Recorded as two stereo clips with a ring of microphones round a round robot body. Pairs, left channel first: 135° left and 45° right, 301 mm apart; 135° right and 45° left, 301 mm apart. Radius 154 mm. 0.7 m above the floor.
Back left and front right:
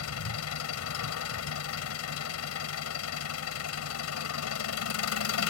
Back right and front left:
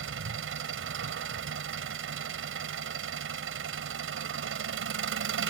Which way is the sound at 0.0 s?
95° left.